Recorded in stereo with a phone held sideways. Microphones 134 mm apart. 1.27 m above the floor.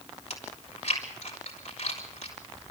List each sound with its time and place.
0.3 s chewing: 65° left (ahead or behind), 5 m